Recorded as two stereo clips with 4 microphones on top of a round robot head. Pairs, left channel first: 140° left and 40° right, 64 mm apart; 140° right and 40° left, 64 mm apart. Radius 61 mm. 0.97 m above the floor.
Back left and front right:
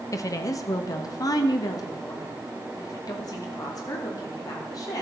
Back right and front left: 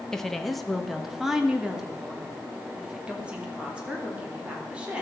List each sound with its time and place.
0.1 s a woman speaking: 140° left, 1.1 m; by 5.0 s 115° left, 4 m